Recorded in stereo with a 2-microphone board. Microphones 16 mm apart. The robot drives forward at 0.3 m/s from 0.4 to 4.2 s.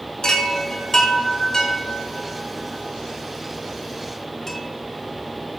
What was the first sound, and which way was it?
A chime, 55° left (ahead or behind).